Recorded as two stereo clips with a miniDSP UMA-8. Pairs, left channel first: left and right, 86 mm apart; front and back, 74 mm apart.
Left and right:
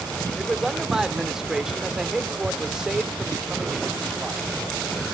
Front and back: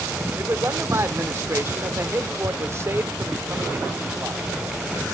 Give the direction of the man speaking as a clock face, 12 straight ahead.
6 o'clock.